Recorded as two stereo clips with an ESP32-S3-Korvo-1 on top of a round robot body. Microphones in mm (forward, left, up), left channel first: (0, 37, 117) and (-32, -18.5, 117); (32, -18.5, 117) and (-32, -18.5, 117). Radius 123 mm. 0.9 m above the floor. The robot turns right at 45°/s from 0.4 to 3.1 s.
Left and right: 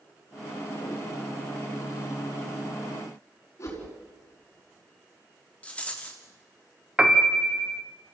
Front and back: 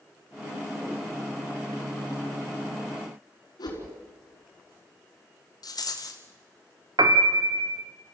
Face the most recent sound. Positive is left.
turn(degrees=160)